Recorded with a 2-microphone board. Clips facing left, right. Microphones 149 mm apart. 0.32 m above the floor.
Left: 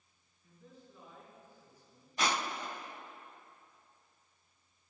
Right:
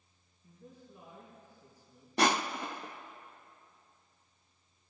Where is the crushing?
75° right (ahead or behind), 0.5 m.